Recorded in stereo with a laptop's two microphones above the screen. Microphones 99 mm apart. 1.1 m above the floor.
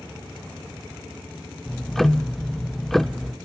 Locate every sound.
1.7 s ticking: centre (ahead or behind), 0.5 m